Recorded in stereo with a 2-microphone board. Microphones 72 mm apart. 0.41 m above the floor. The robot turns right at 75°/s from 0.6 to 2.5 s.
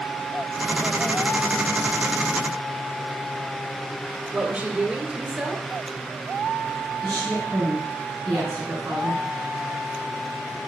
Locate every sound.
4.3 s a woman speaking: 20° right (ahead or behind), 1.3 m
7.0 s a woman speaking: 55° right (ahead or behind), 4.5 m